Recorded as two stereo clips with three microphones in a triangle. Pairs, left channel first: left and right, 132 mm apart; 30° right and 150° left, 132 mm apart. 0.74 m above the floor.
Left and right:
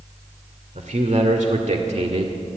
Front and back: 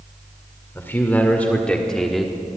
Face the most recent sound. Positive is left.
turn(degrees=-125)